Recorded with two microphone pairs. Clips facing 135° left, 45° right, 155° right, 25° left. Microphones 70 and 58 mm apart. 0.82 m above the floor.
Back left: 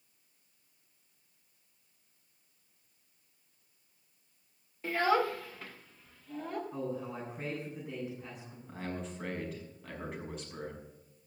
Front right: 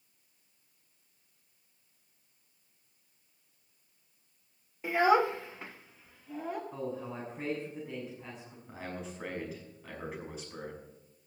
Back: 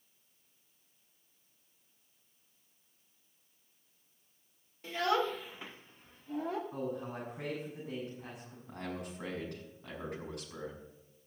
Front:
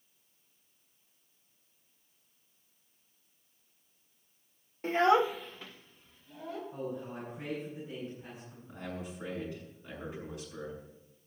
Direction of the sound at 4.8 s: 30° left.